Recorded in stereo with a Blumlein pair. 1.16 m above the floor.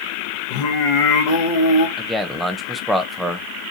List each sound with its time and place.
0.5 s singing: 45° left, 0.9 m
2.0 s a man speaking: 5° right, 0.6 m